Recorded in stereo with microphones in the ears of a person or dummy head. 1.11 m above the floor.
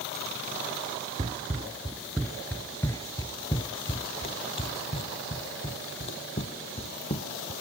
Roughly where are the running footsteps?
Centre.